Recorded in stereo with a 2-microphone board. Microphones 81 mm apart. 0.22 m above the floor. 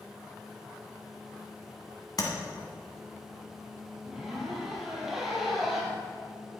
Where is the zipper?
5° right (ahead or behind), 1.9 m.